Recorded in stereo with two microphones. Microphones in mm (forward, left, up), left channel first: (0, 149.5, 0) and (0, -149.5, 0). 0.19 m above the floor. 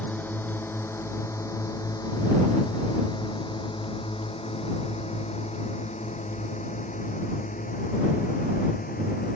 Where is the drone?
5° left (ahead or behind); by 9.4 s 30° left (ahead or behind).